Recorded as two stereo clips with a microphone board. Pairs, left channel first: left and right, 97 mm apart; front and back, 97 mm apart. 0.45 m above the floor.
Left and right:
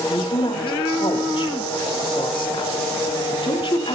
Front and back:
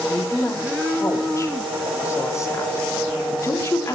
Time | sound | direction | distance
0.1 | a woman speaking | 60° left | 3.5 m